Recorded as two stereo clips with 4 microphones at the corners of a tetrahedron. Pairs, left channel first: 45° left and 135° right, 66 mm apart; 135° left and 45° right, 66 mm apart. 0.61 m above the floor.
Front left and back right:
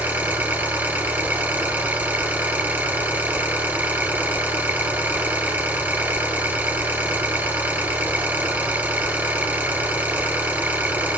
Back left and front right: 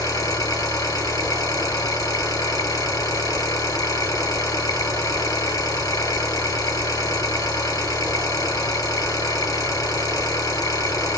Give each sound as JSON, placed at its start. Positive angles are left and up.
{"t": 0.0, "sound": "an engine running", "azimuth_deg": 160, "distance_m": 2.5}